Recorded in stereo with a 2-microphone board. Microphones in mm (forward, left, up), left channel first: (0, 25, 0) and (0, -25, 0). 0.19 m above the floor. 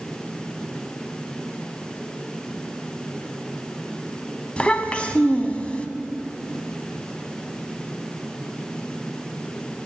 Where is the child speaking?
25° left (ahead or behind), 0.6 m.